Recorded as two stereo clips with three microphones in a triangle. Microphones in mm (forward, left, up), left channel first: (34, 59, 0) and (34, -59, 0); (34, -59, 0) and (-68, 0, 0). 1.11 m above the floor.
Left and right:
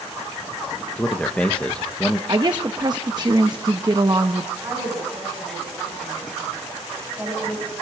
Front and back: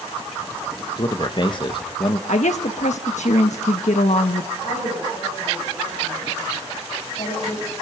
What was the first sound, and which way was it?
A man speaking, 10° left.